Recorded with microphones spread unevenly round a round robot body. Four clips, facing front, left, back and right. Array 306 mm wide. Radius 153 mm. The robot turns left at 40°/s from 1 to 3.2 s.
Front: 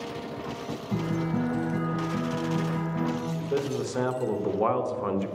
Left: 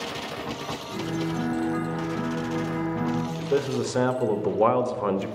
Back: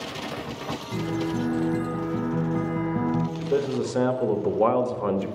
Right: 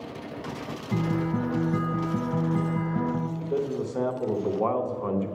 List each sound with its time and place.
0.9 s a guitar: 65° right, 1.1 m; by 3.3 s 155° right, 1.1 m
3.4 s a man speaking: 125° left, 1.1 m